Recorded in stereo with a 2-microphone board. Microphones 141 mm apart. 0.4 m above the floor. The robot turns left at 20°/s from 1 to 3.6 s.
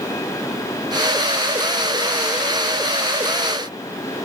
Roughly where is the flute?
I don't hear a flute.